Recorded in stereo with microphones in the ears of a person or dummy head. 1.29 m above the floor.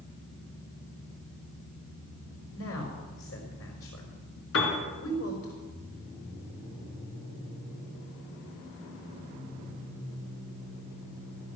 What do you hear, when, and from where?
2.5 s a woman speaking: 75° left (ahead or behind), 4.5 m
4.5 s a piano: 75° left (ahead or behind), 4 m